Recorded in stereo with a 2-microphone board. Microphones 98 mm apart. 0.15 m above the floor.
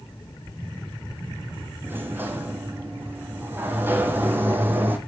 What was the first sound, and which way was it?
A sliding door, 20° right (ahead or behind).